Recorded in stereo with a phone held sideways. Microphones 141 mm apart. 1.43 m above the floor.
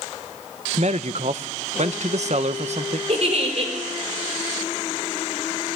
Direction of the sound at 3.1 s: 50° right (ahead or behind).